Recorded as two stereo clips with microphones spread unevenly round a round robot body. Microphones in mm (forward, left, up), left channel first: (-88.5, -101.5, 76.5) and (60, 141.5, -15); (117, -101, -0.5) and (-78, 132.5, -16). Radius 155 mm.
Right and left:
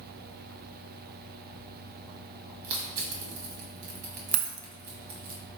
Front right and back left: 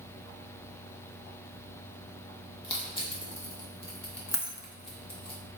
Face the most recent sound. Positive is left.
turn(degrees=30)